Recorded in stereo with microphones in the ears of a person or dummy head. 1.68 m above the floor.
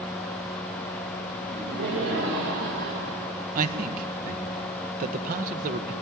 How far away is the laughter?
About 7.5 m.